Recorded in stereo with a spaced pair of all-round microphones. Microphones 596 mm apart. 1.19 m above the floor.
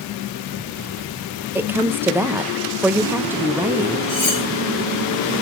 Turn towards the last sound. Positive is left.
turn(degrees=55)  # may be behind; listen again after turning